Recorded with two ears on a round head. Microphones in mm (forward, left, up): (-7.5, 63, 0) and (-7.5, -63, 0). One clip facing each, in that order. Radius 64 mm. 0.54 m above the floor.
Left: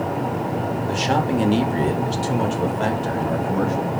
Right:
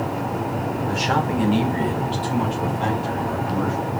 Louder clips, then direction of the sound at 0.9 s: Left 2 dB; 30° left (ahead or behind).